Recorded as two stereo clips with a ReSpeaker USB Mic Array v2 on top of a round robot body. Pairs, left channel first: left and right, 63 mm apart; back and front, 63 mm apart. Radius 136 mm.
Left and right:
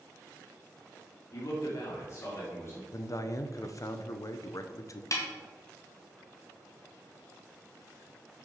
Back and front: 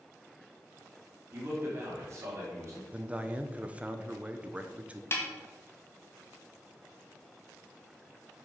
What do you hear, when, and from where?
1.3 s a man speaking: 50° left, 2.5 m; by 2.8 s 40° left, 4 m
2.9 s a man speaking: 65° left, 0.9 m
5.1 s a snare drum: 130° left, 1.9 m